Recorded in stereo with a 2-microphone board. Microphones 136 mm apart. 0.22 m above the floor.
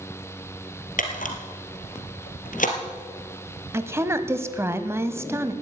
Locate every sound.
1.0 s a camera shutter: 80° left, 2.5 m
3.7 s a woman speaking: 20° right (ahead or behind), 1.0 m